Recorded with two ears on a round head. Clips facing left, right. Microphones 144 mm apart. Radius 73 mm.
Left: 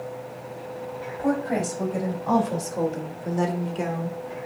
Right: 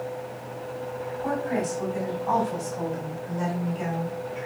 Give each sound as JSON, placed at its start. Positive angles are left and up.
{"t": 1.2, "sound": "a woman speaking", "side_deg": 55, "distance_m": 4.0}